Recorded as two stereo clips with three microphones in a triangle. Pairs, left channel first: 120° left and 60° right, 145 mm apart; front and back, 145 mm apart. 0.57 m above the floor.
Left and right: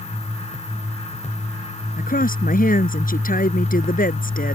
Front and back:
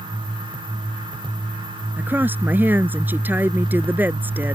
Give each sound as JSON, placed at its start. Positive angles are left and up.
{"t": 2.0, "sound": "a woman speaking", "azimuth_deg": 105}